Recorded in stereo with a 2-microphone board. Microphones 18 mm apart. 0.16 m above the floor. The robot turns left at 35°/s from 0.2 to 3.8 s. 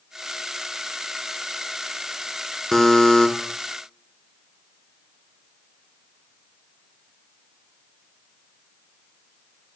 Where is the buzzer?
15° left (ahead or behind), 0.7 m; by 3.3 s 35° left (ahead or behind), 0.7 m.